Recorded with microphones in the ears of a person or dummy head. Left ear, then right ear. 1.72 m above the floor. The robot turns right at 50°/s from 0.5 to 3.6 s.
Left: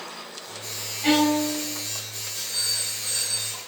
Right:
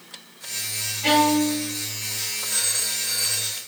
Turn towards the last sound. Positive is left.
turn(degrees=0)